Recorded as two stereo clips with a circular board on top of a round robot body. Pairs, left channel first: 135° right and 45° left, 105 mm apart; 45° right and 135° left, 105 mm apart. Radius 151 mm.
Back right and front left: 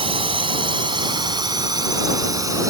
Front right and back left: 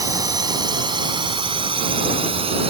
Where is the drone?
80° left; by 2.7 s 105° left.